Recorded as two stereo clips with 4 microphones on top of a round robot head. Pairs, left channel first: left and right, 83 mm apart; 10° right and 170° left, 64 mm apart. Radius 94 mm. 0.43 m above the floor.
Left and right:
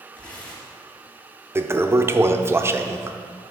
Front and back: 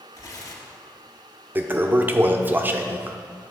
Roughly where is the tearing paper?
Ahead.